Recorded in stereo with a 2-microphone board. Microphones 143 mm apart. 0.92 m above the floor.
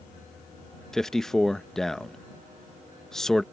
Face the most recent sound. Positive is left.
turn(degrees=5)  # may be behind; listen again after turning